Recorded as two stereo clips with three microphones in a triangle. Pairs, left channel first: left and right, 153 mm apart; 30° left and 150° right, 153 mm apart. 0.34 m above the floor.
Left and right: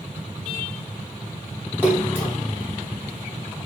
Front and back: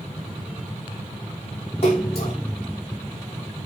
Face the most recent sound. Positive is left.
turn(degrees=-15)